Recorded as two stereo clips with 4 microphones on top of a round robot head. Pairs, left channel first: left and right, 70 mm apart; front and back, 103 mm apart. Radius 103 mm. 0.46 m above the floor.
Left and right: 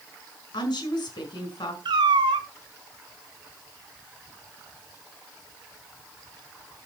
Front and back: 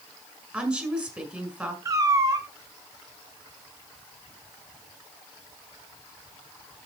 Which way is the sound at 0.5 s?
105° left.